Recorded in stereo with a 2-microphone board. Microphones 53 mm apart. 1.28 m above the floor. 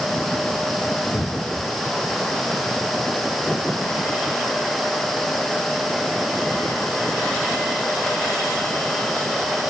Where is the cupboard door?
40° left (ahead or behind), 0.9 m.